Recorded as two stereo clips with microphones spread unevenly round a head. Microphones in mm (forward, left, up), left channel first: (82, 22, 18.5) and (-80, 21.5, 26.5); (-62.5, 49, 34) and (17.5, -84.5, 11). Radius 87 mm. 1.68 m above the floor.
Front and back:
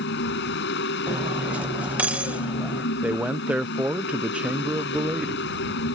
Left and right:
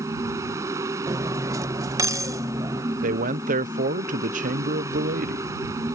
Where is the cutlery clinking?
120° right.